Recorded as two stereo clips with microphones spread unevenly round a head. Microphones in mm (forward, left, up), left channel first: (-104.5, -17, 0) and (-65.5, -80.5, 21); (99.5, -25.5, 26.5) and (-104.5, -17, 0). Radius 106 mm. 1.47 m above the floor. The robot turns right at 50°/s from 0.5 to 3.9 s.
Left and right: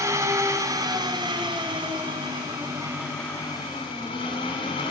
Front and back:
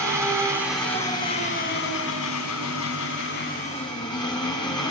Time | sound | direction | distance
0.0 | an engine running | 105° right | 6.5 m